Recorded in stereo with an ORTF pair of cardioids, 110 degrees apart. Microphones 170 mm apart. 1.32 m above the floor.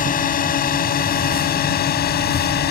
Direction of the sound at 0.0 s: 55° left.